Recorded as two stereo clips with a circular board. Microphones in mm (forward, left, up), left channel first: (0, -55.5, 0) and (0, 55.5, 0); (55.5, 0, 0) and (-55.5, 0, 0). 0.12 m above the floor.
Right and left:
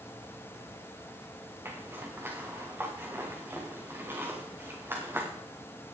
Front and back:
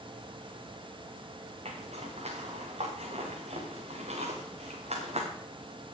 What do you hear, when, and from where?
1.6 s a zipper: 160° left, 3.5 m